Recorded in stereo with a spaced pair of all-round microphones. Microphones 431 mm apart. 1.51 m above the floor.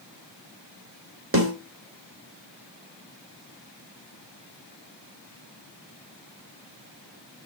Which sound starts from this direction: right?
A snare drum, at 1.3 s.